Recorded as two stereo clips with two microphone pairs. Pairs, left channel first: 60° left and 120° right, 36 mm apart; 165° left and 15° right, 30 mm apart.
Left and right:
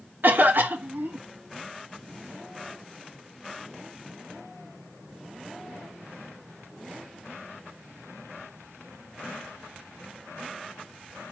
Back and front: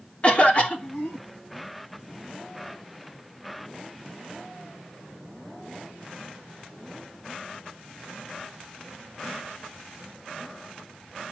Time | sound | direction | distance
0.2 | a cough | 150° right | 3 m